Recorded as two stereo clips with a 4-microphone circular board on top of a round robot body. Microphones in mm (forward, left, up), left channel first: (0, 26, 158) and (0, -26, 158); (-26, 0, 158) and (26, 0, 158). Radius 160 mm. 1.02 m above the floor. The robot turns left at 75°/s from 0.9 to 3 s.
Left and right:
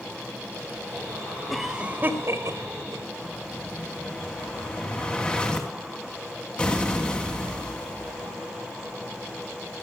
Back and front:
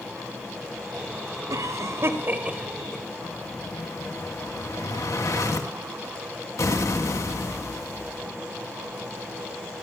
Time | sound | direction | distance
1.5 | a cough | 5° left | 3.5 m
3.2 | an explosion | 165° left | 3 m